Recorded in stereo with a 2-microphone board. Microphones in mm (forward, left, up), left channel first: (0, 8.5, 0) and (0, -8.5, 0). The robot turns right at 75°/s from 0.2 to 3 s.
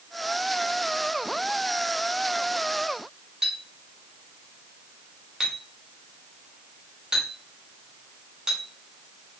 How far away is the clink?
About 1.4 m.